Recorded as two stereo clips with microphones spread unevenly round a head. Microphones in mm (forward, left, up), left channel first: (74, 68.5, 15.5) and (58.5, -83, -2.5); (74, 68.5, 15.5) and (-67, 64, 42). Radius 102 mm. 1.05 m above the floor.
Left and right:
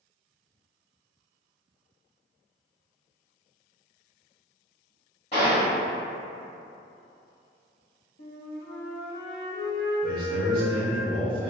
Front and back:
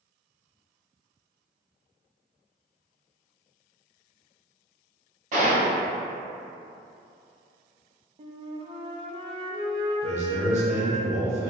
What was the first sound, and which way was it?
A gunshot, 150° left.